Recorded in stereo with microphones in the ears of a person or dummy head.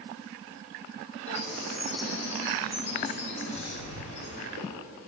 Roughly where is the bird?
Left.